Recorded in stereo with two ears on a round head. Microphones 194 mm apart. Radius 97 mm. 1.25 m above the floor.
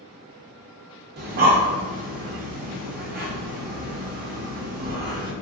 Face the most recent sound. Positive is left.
turn(degrees=-40)  # may be behind; listen again after turning